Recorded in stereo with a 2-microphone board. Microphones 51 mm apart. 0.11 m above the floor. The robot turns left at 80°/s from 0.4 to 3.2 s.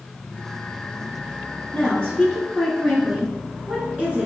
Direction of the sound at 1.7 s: 20° left (ahead or behind).